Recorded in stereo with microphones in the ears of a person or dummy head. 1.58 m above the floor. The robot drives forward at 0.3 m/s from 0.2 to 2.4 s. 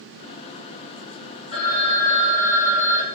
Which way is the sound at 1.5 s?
25° left (ahead or behind).